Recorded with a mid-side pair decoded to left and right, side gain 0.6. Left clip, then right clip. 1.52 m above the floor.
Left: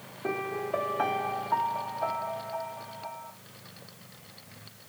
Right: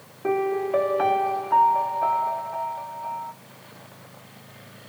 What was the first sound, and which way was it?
A piano, 15° right.